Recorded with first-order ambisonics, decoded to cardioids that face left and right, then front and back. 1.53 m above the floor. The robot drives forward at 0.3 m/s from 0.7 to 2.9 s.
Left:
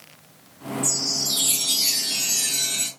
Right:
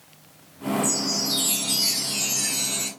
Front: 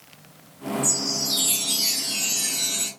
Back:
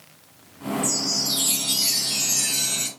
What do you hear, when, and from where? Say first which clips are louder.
0.8 s a chime: left 4 dB, back 1 dB; 80° left, 0.8 m; by 2.9 s 150° left, 0.9 m